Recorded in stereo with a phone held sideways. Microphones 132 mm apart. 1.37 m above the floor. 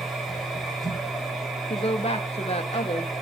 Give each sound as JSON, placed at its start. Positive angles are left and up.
{"t": 0.0, "sound": "a machine running", "side_deg": 0, "distance_m": 2.5}
{"t": 1.7, "sound": "a woman speaking", "side_deg": 50, "distance_m": 0.9}